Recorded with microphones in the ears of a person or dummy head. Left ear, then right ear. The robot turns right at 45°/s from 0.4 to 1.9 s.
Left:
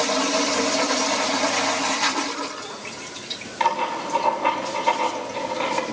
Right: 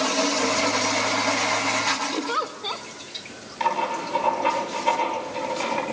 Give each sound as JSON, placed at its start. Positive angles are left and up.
{"t": 2.1, "sound": "a giggle", "side_deg": -50, "distance_m": 1.4}
{"t": 3.6, "sound": "writing", "side_deg": 0, "distance_m": 6.5}